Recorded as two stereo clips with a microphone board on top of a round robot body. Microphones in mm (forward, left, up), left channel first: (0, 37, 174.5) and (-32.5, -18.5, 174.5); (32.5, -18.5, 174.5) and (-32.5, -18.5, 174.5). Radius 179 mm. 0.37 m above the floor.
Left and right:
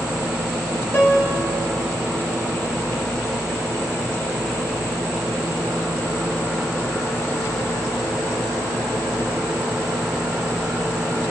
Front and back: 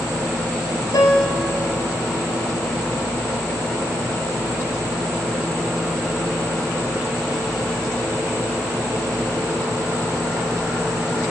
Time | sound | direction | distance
0.9 | a piano | 5° left | 3 m